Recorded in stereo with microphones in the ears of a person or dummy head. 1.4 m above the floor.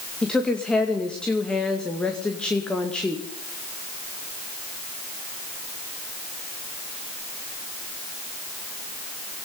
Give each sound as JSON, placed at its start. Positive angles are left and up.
{"t": 0.2, "sound": "a woman speaking", "side_deg": 5, "distance_m": 2.0}